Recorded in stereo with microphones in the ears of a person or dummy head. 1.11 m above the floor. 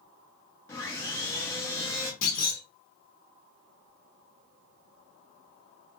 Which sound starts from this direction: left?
A clunk, at 2.2 s.